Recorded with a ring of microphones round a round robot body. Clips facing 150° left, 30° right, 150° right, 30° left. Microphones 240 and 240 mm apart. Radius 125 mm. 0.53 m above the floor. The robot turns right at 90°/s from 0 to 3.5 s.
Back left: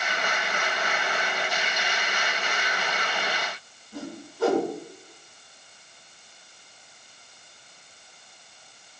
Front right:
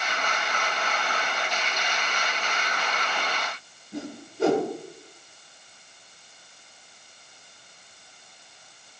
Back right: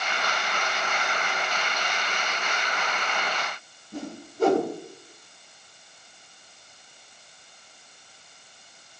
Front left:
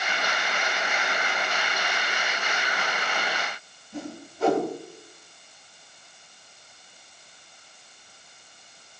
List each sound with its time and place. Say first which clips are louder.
3.9 s a whoosh: front right 2 dB, back right 1 dB; 100° right, 6 m